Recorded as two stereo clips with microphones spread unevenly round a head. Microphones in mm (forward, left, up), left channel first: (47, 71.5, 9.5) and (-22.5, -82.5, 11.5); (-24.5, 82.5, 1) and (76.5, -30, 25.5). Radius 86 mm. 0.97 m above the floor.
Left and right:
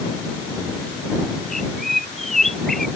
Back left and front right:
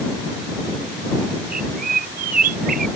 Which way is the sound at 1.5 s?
20° right.